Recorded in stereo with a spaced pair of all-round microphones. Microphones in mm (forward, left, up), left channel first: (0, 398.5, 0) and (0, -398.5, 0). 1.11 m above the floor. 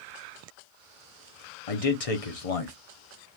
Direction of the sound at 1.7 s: 45° left (ahead or behind).